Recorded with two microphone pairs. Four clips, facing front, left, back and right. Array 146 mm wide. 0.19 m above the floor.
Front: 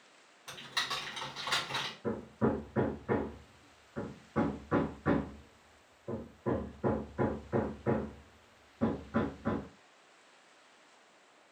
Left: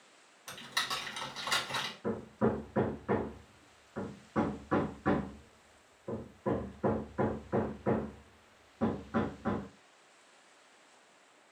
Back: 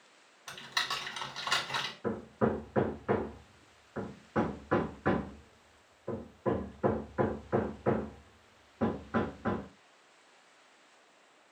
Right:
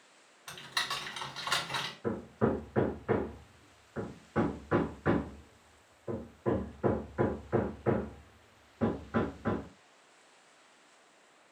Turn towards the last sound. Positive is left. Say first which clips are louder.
# right 1 dB, back 1 dB
turn(degrees=-175)